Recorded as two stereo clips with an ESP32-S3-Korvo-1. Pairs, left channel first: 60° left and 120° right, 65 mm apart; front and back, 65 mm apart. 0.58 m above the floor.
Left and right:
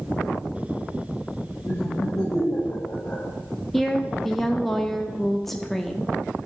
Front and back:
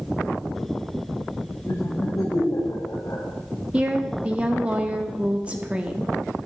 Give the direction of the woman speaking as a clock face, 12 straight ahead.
7 o'clock.